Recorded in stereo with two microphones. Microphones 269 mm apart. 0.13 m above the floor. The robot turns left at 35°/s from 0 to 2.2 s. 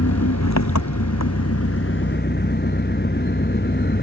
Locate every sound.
0.0 s an engine running: 115° left; by 4.0 s 40° left